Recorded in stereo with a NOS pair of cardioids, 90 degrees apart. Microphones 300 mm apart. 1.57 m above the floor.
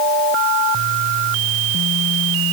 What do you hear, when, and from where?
Only background noise.